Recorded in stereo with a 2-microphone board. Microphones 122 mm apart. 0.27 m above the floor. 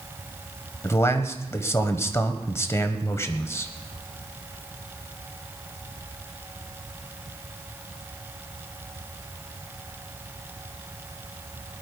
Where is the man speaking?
25° left (ahead or behind), 1.3 m.